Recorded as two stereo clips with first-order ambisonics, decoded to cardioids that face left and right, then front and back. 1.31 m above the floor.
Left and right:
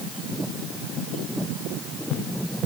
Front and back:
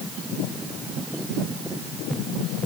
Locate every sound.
Only background noise.